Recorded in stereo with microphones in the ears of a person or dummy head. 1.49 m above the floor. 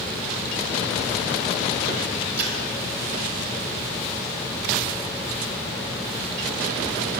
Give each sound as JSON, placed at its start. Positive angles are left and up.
{"t": 2.4, "sound": "a splash", "side_deg": -55, "distance_m": 6.5}